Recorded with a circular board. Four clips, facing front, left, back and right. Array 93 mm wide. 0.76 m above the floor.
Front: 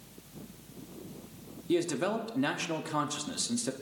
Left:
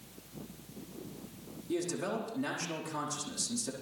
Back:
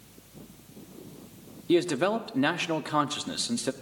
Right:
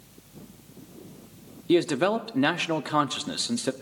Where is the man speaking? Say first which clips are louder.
Right 12 dB, back 5 dB; 120° right, 1.1 m.